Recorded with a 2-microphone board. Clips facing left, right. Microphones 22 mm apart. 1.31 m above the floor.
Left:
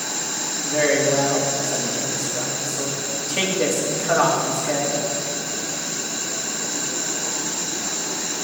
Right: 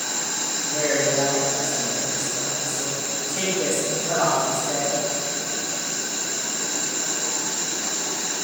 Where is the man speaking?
85° left, 3 m.